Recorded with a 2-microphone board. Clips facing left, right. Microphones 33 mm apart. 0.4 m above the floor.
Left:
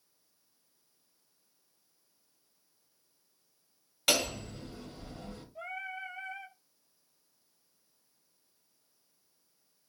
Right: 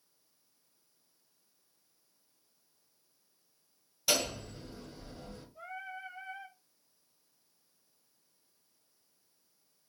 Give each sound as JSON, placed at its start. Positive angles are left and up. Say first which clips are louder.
{"t": 4.1, "sound": "hammering", "louder": "left 2 dB", "side_deg": 60, "distance_m": 1.8}
{"t": 5.5, "sound": "singing", "louder": "left 4 dB", "side_deg": 85, "distance_m": 2.5}